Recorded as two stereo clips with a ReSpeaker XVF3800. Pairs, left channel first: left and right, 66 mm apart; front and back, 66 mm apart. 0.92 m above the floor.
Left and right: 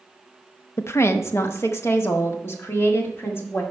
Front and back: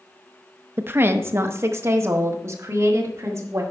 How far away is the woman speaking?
About 0.7 m.